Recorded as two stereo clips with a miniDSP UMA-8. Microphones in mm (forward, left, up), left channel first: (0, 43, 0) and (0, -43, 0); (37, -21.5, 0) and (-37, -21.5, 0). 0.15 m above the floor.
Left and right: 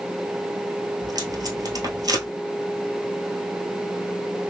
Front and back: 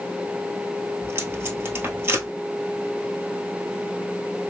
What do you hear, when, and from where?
1.0 s tape being pulled: 125° right, 1.1 m